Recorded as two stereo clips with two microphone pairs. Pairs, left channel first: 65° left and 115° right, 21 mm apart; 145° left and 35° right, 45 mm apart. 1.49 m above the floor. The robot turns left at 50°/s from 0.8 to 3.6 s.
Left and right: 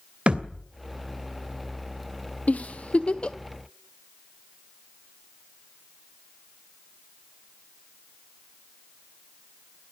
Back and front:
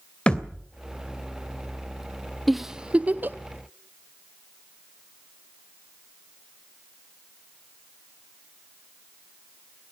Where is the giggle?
60° left, 0.9 m; by 3.4 s 15° left, 0.9 m.